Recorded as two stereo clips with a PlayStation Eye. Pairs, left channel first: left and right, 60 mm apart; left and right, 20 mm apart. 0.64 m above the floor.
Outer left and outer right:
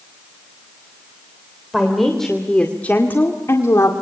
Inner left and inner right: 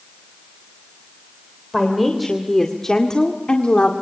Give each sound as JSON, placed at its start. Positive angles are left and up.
{"t": 1.7, "sound": "a woman speaking", "side_deg": -5, "distance_m": 2.5}